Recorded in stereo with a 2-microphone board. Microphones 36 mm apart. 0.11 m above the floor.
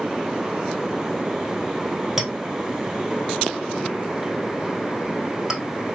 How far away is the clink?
About 2.5 m.